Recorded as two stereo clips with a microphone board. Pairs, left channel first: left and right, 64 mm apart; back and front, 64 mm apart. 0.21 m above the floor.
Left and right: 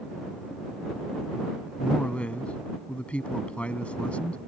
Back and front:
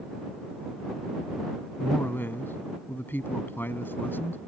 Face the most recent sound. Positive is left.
turn(degrees=150)